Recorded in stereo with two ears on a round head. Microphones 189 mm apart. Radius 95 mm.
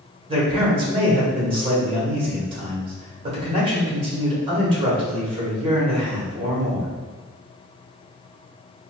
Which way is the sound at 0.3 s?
25° right (ahead or behind).